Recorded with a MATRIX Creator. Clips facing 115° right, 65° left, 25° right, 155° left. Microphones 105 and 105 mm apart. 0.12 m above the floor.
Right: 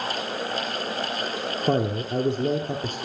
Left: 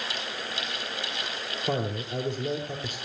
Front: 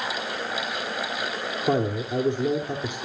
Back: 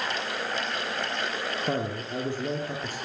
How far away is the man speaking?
About 2.0 m.